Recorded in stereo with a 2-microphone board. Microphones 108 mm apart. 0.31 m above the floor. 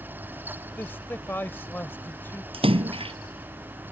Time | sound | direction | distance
0.8 | a man speaking | 20° left (ahead or behind) | ?
2.5 | a splash | 60° right (ahead or behind) | ?